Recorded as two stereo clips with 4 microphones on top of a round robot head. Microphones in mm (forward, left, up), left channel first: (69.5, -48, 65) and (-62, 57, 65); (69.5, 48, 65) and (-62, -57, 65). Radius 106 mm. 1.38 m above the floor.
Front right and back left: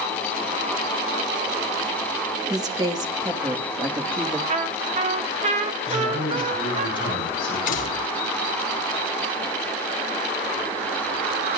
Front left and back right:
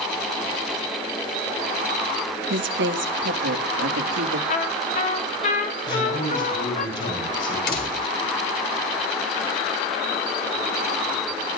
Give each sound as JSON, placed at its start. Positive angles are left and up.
{"t": 2.5, "sound": "a woman speaking", "azimuth_deg": -150, "distance_m": 2.5}
{"t": 4.5, "sound": "a trumpet", "azimuth_deg": 90, "distance_m": 1.2}
{"t": 5.9, "sound": "a man speaking", "azimuth_deg": 25, "distance_m": 9.5}
{"t": 7.7, "sound": "a door slam", "azimuth_deg": 5, "distance_m": 3.0}